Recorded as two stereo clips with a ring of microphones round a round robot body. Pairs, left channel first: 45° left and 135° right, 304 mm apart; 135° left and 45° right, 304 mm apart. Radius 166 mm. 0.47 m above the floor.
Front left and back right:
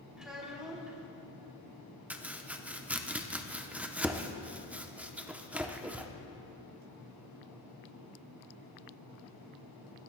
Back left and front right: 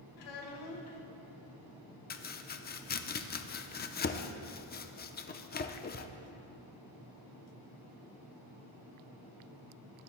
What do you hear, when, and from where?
0.2 s a child speaking: 135° left, 3.5 m
2.1 s chopping: 145° left, 0.7 m